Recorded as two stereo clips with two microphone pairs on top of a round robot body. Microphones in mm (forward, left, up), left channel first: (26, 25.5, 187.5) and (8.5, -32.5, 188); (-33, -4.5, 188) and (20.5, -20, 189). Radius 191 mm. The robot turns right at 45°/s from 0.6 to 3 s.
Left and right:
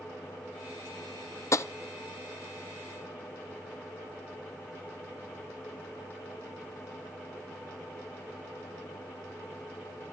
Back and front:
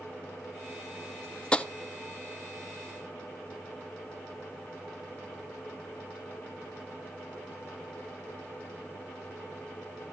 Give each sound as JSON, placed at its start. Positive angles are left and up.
{"t": 1.5, "sound": "tapping", "azimuth_deg": 95, "distance_m": 0.8}